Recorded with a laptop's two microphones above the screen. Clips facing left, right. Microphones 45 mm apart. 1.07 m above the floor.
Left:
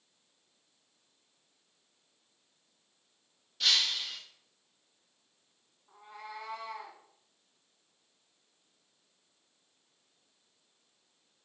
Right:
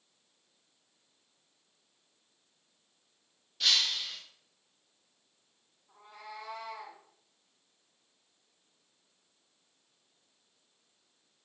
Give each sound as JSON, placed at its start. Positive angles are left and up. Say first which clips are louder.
{"t": 3.6, "sound": "breaking glass", "louder": "even", "side_deg": 0, "distance_m": 0.6}
{"t": 5.9, "sound": "a cat meowing", "louder": "left 2 dB", "side_deg": 35, "distance_m": 1.3}